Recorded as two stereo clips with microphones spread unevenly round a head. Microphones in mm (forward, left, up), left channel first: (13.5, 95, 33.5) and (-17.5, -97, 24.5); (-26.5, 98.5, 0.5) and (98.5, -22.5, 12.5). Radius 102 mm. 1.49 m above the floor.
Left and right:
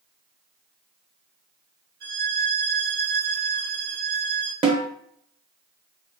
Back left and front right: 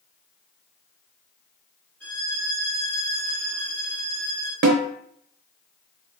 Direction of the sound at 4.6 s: 35° right.